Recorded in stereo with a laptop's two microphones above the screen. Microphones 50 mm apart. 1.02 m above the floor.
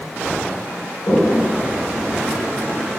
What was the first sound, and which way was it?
A toilet flushing, 75° left (ahead or behind).